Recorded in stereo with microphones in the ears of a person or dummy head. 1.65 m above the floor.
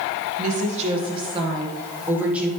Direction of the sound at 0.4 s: 45° right (ahead or behind).